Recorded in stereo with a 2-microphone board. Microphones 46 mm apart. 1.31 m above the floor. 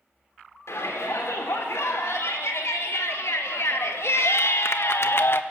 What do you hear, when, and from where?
0.7 s a shout: 80° left, 3.5 m; by 5.4 s 55° left (ahead or behind), 0.9 m